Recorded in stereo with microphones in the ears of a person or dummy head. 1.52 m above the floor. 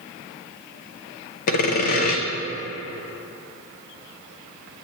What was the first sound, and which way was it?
Sawing, 55° left (ahead or behind).